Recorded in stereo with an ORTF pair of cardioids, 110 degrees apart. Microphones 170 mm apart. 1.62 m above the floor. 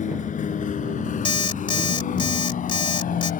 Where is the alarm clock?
30° left.